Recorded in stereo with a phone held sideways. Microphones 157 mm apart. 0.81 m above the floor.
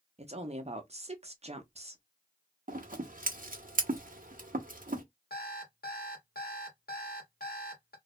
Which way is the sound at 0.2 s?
45° right (ahead or behind).